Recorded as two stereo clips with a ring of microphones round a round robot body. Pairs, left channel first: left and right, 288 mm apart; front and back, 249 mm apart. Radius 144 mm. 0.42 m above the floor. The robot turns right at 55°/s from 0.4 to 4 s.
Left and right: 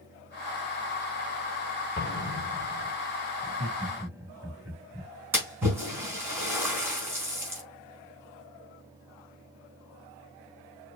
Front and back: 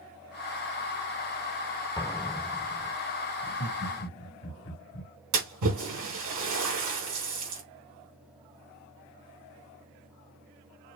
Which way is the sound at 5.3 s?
170° right.